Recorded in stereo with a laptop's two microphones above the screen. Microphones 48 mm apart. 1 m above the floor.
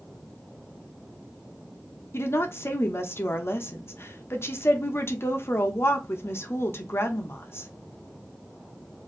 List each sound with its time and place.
2.1 s a woman speaking: 55° left (ahead or behind), 1.0 m